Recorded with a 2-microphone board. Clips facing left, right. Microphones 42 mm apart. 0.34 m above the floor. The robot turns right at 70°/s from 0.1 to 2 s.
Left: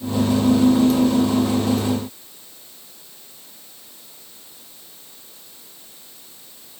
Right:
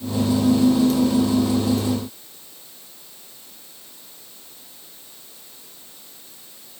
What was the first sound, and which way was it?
Only background noise.